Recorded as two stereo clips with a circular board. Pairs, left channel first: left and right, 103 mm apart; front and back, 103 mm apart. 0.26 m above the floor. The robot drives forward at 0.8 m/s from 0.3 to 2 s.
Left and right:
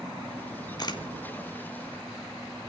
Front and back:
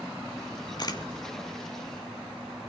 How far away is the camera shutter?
About 2 m.